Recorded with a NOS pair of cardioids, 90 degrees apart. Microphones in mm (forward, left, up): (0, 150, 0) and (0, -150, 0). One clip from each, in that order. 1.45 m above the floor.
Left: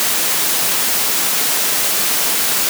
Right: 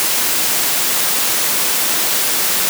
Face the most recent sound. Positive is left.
No sound to turn to.